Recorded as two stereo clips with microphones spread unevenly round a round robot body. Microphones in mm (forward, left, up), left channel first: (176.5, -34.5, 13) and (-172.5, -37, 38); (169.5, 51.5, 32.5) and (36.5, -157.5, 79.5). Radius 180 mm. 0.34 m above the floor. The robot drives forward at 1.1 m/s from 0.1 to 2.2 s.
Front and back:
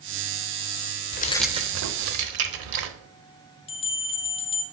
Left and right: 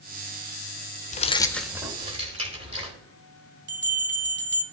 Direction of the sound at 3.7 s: 75° right.